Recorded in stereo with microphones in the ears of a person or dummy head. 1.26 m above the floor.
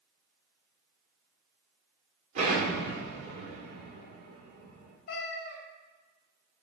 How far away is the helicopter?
No helicopter in this recording.